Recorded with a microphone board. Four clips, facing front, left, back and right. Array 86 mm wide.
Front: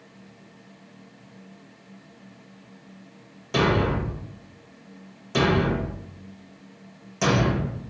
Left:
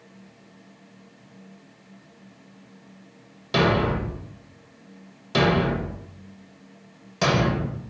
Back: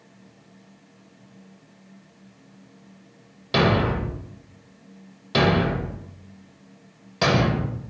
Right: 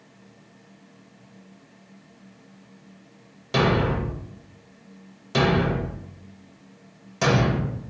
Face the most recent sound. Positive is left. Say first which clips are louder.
# left 1 dB, back 1 dB
turn(degrees=170)